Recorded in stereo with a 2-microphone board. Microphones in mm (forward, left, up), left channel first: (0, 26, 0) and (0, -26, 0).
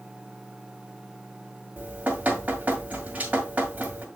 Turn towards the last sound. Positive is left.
turn(degrees=-30)  # may be behind; listen again after turning